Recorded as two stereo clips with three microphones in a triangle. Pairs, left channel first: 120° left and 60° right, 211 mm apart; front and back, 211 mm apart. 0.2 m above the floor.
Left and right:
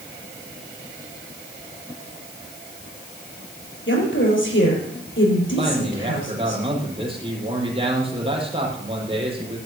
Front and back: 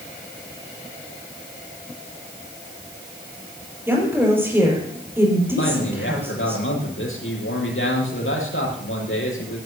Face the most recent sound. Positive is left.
turn(degrees=5)